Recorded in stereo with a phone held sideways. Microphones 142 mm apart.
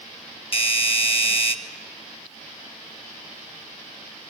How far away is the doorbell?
About 1.5 m.